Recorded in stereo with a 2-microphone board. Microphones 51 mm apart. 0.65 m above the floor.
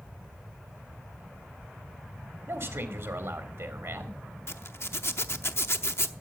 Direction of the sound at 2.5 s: 60° right (ahead or behind).